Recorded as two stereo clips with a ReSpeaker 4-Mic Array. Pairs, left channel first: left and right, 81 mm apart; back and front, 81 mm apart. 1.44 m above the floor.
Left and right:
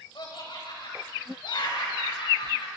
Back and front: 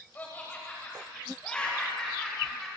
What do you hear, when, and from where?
0.1 s laughter: 115° left, 9 m; by 2.7 s 95° left, 8 m